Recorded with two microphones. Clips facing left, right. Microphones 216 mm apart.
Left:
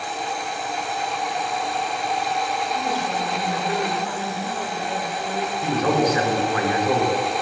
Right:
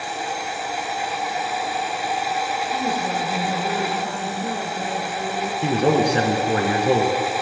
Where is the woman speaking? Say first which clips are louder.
Right 4 dB; 45° right (ahead or behind), 6 m.